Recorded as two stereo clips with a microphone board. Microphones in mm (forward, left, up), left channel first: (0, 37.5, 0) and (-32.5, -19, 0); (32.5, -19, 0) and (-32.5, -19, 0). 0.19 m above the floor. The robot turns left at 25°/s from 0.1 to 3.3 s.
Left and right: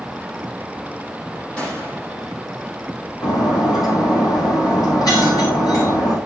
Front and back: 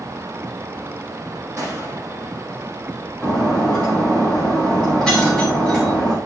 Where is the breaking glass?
80° left, 6.5 m.